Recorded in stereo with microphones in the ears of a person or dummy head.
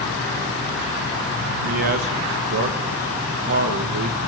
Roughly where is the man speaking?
Right.